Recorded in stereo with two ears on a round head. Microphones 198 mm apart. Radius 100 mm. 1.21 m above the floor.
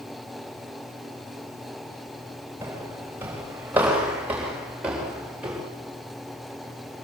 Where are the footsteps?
10° right (ahead or behind), 8.5 m; by 5.6 s 5° right (ahead or behind), 9.5 m.